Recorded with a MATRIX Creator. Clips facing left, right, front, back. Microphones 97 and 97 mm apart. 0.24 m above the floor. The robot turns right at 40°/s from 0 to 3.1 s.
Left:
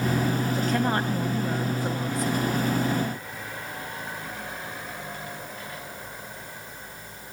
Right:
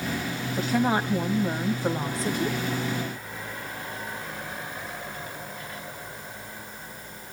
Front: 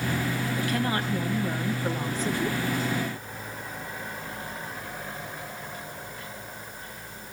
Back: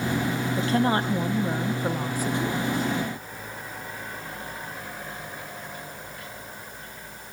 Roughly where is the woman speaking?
Behind.